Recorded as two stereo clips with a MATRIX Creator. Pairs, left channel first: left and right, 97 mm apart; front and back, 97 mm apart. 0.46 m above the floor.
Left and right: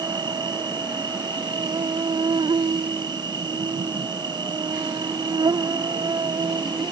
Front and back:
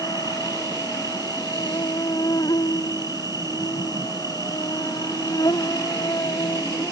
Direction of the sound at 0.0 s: 50° right.